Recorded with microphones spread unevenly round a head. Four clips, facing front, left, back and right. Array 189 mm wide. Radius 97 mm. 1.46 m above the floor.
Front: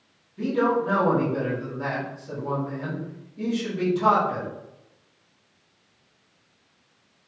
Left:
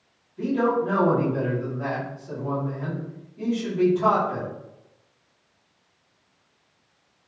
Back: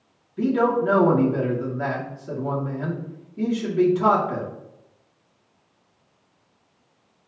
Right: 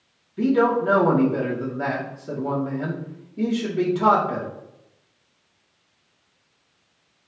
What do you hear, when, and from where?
0.4 s a man speaking: 135° right, 3 m